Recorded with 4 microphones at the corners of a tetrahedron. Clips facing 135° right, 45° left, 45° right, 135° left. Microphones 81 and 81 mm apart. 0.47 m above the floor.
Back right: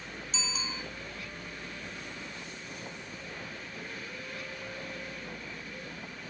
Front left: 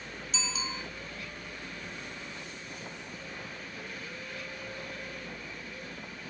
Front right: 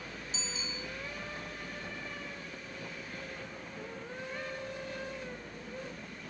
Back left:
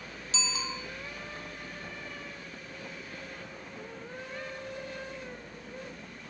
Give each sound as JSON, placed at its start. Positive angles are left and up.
{"t": 0.3, "sound": "a bicycle bell", "azimuth_deg": 135, "distance_m": 3.0}